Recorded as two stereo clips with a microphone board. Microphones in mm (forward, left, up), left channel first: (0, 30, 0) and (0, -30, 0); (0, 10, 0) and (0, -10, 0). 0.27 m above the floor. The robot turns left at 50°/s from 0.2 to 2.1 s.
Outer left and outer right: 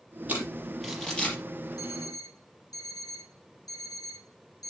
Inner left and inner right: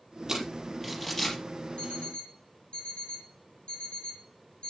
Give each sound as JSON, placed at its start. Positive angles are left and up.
{"t": 0.3, "sound": "crumpling", "side_deg": -25, "distance_m": 4.5}
{"t": 1.8, "sound": "an alarm clock", "side_deg": 85, "distance_m": 6.0}